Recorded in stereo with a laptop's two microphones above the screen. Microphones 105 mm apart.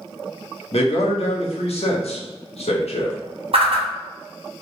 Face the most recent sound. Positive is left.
turn(degrees=-70)  # may be behind; listen again after turning